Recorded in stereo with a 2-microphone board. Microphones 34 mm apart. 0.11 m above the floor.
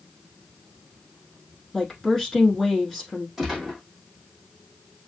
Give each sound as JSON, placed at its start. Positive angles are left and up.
{"t": 1.7, "sound": "a woman speaking", "side_deg": 0, "distance_m": 4.0}
{"t": 3.4, "sound": "a gunshot", "side_deg": -10, "distance_m": 2.5}